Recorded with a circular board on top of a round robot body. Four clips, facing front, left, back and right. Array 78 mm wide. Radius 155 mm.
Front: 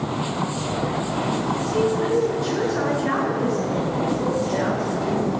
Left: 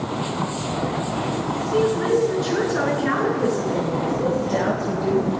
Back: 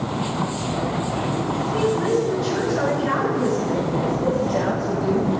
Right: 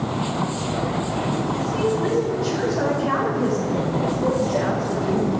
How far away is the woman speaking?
About 9 m.